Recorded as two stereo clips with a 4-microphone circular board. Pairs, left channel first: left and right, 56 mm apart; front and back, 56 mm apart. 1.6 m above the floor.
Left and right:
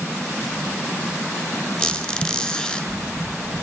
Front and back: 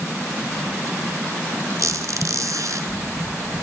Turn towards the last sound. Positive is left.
turn(degrees=160)